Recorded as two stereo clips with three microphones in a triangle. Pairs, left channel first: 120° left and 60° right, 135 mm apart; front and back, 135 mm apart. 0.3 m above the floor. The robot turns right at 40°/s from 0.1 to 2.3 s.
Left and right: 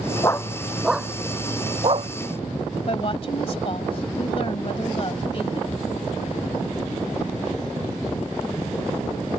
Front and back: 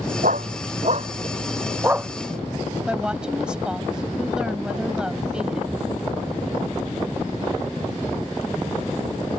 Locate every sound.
0.2 s a dog barking: 175° right; by 2.1 s 100° right
2.9 s a woman speaking: 100° left